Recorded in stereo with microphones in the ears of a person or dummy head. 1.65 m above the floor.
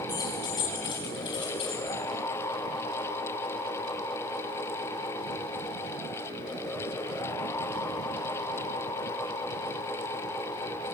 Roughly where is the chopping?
No chopping in this recording.